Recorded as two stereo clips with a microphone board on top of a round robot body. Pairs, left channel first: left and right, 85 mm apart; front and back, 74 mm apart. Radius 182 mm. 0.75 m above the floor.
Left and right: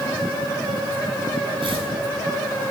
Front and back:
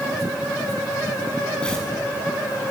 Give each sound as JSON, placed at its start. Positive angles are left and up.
{"t": 1.6, "sound": "tearing paper", "azimuth_deg": -80, "distance_m": 7.0}